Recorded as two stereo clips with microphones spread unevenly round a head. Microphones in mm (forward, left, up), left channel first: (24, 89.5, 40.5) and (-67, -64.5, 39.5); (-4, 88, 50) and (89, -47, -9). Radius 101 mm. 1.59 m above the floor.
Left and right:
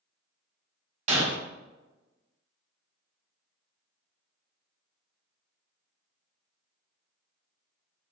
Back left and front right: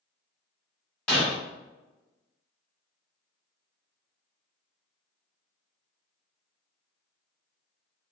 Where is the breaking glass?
165° right, 1.8 m.